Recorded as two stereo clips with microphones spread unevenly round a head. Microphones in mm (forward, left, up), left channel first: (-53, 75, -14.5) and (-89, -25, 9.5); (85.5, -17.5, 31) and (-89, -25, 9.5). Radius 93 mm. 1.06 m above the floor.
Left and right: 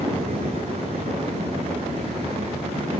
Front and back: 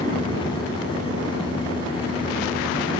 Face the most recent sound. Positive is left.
turn(degrees=-60)